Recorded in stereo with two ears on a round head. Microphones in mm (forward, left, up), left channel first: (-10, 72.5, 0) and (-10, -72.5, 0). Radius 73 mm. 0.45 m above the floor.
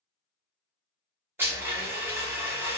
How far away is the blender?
About 0.9 m.